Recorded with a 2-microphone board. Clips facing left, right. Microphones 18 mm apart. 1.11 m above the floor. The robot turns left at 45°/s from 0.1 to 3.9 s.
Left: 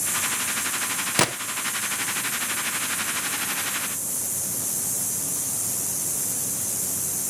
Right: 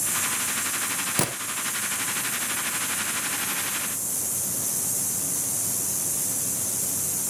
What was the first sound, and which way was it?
A gunshot, 25° left (ahead or behind).